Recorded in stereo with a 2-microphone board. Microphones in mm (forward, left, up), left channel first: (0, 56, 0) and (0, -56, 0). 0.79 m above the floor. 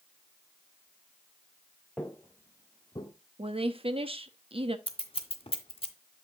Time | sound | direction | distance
2.0 | footsteps | 10° left (ahead or behind) | 0.9 m
3.4 | a woman speaking | 55° right (ahead or behind) | 0.8 m
4.9 | scissors | 55° left (ahead or behind) | 1.2 m